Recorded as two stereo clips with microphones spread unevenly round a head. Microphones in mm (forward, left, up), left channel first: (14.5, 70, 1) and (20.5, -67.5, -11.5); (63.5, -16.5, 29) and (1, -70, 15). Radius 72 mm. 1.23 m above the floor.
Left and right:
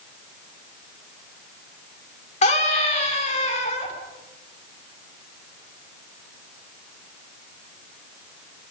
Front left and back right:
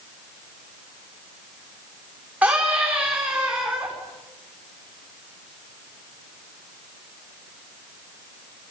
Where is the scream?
140° left, 4 m.